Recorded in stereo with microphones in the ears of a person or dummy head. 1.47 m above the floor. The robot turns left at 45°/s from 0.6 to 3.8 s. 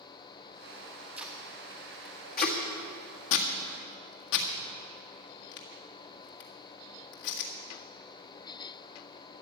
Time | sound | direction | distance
1.2 | tape being pulled | 5° right (ahead or behind) | 1.9 m